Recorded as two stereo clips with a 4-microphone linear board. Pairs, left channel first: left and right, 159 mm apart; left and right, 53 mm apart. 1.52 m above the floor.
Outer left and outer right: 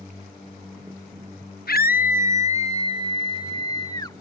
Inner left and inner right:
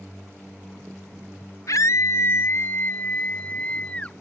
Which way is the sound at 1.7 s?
75° left (ahead or behind).